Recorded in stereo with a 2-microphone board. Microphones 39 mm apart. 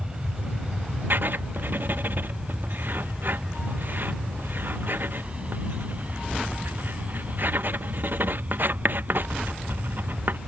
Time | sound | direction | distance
0.0 | an aircraft | 20° right (ahead or behind) | ?
1.1 | writing | 60° right (ahead or behind) | ?